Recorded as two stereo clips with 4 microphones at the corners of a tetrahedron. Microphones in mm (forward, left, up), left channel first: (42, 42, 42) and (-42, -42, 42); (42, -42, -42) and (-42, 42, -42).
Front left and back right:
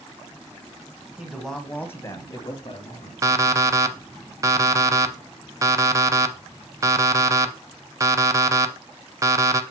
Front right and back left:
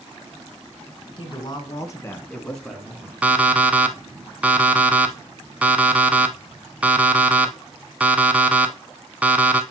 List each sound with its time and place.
1.2 s a woman speaking: 55° right, 1.4 m; by 3.1 s 55° left, 1.5 m
3.2 s an alarm clock: 160° right, 0.6 m